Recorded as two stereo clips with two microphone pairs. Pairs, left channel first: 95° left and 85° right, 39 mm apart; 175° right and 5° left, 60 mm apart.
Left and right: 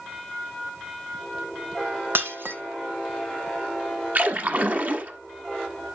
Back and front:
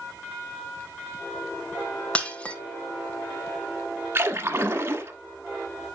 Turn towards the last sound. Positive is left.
turn(degrees=-40)